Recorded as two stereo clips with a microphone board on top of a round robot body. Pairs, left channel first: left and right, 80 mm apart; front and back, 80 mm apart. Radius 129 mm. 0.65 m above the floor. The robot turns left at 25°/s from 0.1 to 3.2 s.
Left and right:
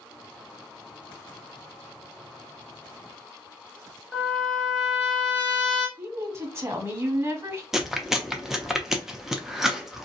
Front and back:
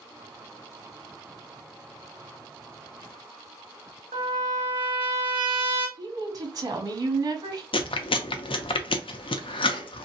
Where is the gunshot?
I don't hear a gunshot.